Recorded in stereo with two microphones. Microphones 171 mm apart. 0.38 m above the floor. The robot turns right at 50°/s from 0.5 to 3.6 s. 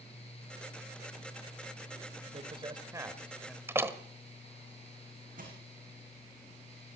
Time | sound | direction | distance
2.3 | a man speaking | 55° right | 1.9 m
3.7 | a door slam | 15° right (ahead or behind) | 1.3 m
5.4 | crushing | 50° right (ahead or behind) | 7 m